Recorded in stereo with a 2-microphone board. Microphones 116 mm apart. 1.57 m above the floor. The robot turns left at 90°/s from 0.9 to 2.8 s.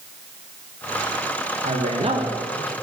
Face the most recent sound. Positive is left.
turn(degrees=170)